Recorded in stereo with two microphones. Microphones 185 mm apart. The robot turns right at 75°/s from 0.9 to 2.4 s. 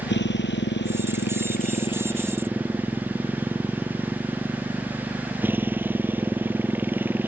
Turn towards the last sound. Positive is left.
turn(degrees=-170)